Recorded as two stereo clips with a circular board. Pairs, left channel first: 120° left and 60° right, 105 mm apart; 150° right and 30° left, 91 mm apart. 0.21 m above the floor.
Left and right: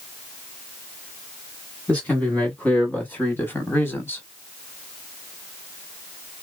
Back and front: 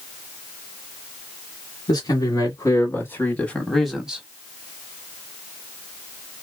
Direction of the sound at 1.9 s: 165° right.